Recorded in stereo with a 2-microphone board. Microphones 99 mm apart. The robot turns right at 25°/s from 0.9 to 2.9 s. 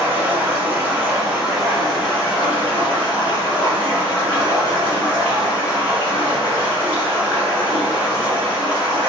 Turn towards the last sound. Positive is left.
turn(degrees=25)